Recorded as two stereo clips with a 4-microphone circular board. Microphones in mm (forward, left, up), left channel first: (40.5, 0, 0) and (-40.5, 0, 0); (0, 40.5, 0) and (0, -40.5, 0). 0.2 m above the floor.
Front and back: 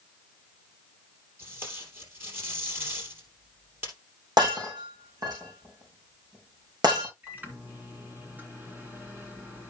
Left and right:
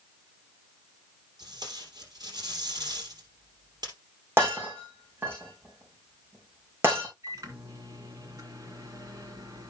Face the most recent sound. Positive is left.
turn(degrees=-120)